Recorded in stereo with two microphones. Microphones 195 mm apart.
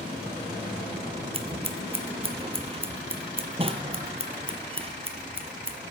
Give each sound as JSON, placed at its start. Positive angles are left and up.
{"t": 1.3, "sound": "scissors", "side_deg": -30, "distance_m": 0.8}